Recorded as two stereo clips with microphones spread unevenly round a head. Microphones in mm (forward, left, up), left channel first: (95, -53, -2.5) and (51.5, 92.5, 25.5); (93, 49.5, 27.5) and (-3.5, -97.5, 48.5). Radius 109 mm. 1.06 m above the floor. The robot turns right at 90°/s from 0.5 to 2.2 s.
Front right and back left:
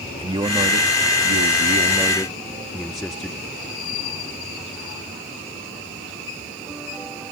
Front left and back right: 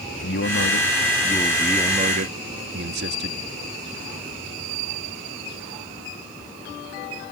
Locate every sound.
0.2 s a man speaking: 45° left; by 3.4 s 160° right